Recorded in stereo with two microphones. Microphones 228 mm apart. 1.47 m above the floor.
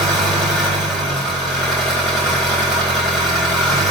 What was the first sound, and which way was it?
An engine running, centre (ahead or behind).